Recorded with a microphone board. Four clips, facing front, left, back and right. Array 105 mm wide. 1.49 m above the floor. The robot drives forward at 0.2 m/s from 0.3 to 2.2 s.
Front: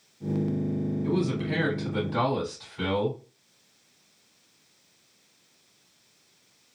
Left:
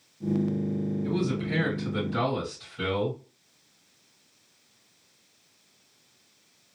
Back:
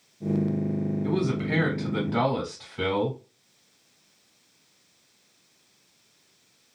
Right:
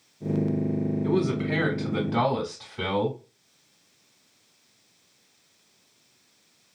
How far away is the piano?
I don't hear a piano.